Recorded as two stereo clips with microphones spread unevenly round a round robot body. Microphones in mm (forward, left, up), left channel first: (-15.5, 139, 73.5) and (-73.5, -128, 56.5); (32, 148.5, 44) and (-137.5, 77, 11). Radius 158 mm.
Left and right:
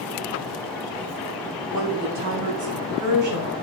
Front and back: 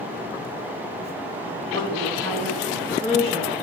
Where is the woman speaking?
120° right, 4 m; by 3.5 s 90° right, 3 m.